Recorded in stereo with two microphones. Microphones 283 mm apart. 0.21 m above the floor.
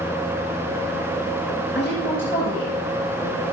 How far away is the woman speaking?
About 3 m.